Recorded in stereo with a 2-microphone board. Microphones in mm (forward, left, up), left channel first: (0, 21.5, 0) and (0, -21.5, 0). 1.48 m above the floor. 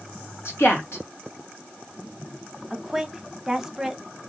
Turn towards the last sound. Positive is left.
turn(degrees=-10)  # may be behind; listen again after turning